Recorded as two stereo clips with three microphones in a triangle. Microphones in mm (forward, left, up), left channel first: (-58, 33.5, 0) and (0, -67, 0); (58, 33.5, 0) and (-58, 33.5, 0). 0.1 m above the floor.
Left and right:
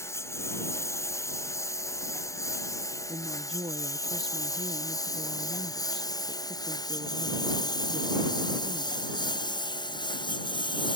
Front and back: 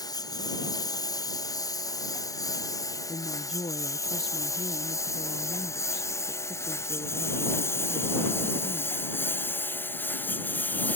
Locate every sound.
0.0 s a lawn mower: 55° left; by 11.0 s 75° left
3.1 s a woman speaking: 30° right